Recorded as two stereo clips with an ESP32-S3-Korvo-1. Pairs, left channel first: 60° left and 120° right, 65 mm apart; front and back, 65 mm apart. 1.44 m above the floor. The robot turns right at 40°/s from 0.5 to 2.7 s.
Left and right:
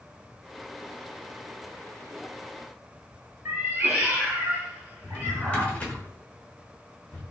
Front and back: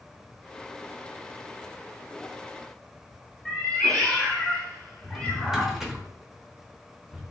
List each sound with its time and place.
3.5 s a cat meowing: 70° right, 1.6 m
5.0 s a drawer: 110° left, 0.8 m